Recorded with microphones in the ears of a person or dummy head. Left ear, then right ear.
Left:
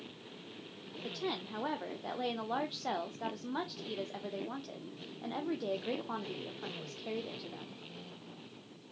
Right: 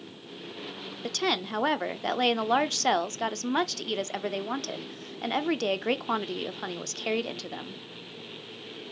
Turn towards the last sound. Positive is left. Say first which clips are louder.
# right 11 dB
turn(degrees=-65)  # may be behind; listen again after turning